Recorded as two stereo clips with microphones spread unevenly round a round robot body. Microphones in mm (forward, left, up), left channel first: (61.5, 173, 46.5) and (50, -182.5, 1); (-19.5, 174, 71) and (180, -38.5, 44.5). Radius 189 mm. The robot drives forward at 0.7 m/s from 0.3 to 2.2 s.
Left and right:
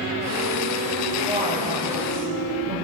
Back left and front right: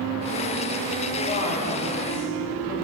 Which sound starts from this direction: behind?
A man speaking, at 1.2 s.